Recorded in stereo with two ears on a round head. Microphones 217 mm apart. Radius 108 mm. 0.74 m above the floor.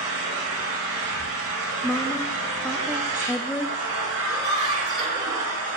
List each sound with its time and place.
0.0 s an engine running: 65° right (ahead or behind), 3 m
1.8 s a woman speaking: centre (ahead or behind), 0.6 m
4.3 s laughter: 25° right (ahead or behind), 6 m